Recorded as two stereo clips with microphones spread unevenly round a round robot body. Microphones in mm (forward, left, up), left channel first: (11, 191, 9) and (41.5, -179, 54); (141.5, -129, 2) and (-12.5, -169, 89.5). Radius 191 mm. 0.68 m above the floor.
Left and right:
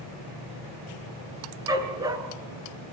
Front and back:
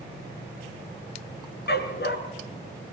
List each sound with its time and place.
1.7 s a dog barking: 5° right, 2.5 m